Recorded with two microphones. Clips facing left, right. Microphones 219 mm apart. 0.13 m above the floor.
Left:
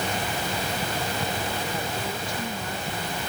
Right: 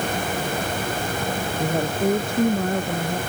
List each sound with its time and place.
1.6 s a woman speaking: 55° right (ahead or behind)